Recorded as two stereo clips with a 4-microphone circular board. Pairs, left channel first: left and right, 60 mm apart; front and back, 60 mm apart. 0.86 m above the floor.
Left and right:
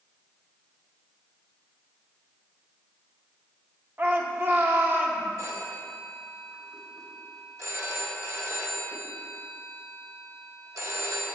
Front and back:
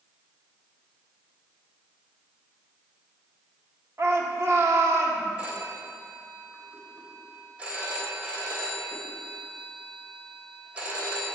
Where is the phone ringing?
115° right, 3 m.